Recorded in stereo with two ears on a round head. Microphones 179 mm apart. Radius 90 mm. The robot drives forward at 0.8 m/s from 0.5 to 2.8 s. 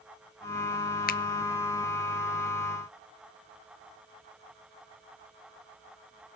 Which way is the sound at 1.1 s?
50° left (ahead or behind).